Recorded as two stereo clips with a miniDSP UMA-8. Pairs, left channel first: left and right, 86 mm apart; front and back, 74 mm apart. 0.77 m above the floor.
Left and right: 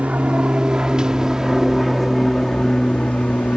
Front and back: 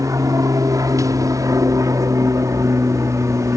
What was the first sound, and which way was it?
An aircraft, 160° right.